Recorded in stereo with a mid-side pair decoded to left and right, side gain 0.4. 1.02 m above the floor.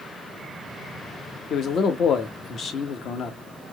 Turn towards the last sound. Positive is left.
turn(degrees=65)